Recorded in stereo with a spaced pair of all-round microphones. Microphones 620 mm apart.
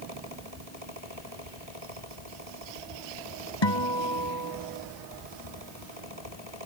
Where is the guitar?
45° left (ahead or behind).